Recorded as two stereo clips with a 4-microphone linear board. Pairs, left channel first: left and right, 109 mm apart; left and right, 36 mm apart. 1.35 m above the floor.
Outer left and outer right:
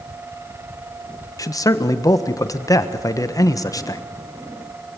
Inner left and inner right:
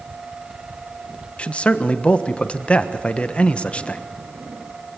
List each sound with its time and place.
1.4 s a man speaking: 30° left (ahead or behind), 1.3 m